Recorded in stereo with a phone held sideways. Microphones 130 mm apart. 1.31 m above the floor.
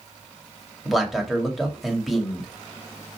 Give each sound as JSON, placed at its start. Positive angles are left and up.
{"t": 0.8, "sound": "a man speaking", "side_deg": 0, "distance_m": 2.5}